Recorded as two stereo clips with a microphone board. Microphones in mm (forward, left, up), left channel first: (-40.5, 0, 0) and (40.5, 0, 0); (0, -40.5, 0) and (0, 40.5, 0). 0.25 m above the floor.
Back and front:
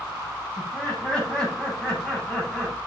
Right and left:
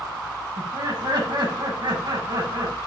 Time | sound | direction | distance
0.6 | laughter | 105° left | 10 m